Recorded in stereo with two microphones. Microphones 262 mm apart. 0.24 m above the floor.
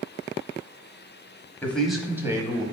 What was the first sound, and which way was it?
A man speaking, 5° left (ahead or behind).